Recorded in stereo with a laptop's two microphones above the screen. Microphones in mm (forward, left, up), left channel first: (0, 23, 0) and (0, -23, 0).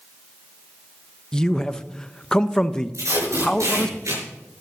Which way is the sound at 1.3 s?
15° left (ahead or behind).